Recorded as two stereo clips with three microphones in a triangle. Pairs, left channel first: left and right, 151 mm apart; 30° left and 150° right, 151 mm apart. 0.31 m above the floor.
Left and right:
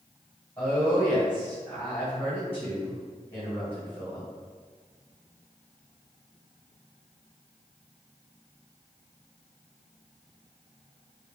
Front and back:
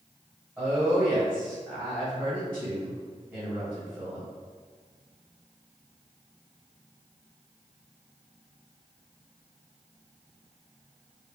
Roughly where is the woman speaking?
Behind left.